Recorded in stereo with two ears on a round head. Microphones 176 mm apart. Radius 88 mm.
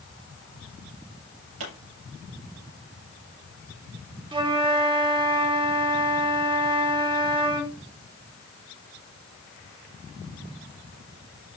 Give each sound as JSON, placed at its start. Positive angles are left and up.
{"t": 1.6, "sound": "a pop", "side_deg": -85, "distance_m": 5.5}
{"t": 4.3, "sound": "a flute", "side_deg": -25, "distance_m": 1.6}